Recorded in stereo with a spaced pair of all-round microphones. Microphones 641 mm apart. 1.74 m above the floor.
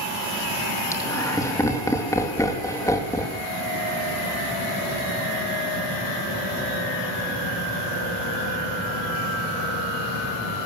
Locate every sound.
0.9 s laughter: 5° left (ahead or behind), 3 m